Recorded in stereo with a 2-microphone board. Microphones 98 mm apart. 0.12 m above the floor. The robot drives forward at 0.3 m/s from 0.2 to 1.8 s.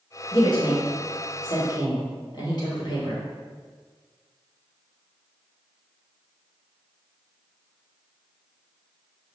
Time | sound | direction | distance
0.3 | a woman speaking | 55° left (ahead or behind) | 2.0 m